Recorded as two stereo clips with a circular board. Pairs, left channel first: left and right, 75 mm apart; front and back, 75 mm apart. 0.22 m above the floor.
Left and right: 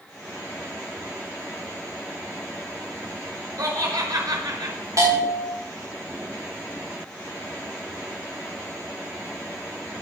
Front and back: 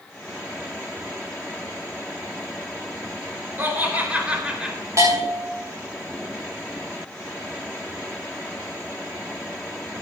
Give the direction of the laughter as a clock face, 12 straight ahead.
4 o'clock.